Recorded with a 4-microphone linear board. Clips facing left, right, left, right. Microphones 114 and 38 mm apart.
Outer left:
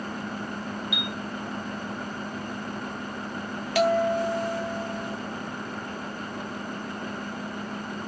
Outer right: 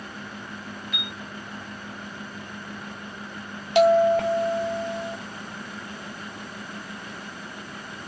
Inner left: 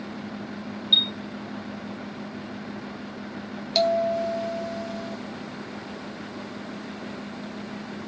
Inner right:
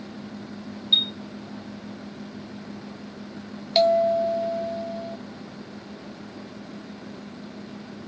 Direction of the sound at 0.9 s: 10° left (ahead or behind).